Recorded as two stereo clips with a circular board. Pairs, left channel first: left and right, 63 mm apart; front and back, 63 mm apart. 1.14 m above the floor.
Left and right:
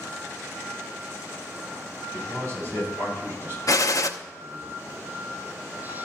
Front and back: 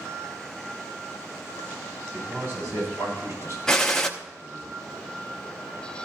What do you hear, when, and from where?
2.1 s a man speaking: 145° right, 5.5 m; by 4.7 s 155° right, 7 m
3.7 s a gunshot: 80° left, 0.7 m